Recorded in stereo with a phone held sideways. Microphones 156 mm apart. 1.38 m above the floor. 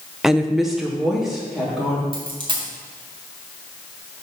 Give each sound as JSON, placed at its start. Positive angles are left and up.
{"t": 0.2, "sound": "a woman speaking", "side_deg": -5, "distance_m": 0.6}
{"t": 2.1, "sound": "a dropped coin", "side_deg": -35, "distance_m": 1.8}